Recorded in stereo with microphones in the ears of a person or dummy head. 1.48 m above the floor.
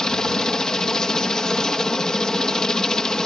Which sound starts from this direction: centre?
A helicopter, at 0.0 s.